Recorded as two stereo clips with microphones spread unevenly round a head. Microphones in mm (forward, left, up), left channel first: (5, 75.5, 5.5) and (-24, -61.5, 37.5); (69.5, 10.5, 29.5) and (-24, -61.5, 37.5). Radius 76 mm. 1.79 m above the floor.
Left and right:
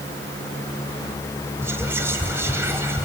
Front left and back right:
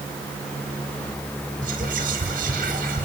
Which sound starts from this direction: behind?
Whispering, at 1.6 s.